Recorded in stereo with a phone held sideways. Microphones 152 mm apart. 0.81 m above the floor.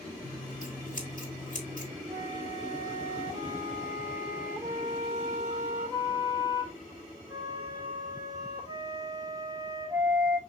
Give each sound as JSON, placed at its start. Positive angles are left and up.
{"t": 0.2, "sound": "scissors", "side_deg": 55, "distance_m": 2.5}
{"t": 2.1, "sound": "a flute", "side_deg": -25, "distance_m": 2.5}